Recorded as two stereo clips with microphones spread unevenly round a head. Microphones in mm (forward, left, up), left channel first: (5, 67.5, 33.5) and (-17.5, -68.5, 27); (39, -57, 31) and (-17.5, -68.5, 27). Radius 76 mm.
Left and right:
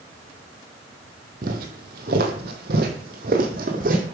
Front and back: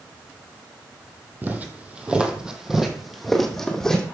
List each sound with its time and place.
1.4 s footsteps: 115° right, 1.7 m; by 4.0 s 70° right, 2.5 m